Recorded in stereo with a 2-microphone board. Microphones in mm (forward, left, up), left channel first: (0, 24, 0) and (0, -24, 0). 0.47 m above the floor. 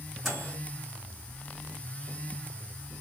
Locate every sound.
0.2 s a microwave: 5° right (ahead or behind), 2 m